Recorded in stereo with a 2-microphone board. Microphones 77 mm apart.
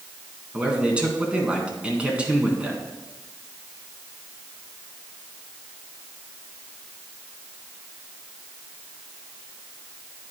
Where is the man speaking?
15° right (ahead or behind), 1.7 m.